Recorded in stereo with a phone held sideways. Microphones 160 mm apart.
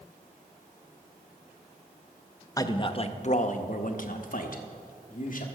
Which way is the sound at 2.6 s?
20° left (ahead or behind).